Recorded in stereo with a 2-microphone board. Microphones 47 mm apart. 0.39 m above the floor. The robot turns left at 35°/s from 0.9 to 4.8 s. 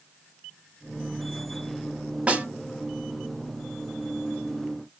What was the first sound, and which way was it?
A snare drum, 25° right (ahead or behind).